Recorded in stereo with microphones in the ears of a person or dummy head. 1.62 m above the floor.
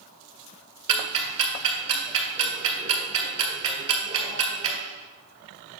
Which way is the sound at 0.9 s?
30° right (ahead or behind).